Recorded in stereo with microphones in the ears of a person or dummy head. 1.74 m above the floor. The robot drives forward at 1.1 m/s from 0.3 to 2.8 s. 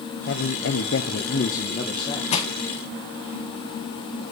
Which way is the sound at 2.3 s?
35° left (ahead or behind).